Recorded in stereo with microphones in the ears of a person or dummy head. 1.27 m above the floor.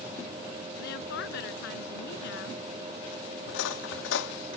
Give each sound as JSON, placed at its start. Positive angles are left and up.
{"t": 0.8, "sound": "a woman speaking", "side_deg": 70}
{"t": 3.5, "sound": "cutlery clinking", "side_deg": 75}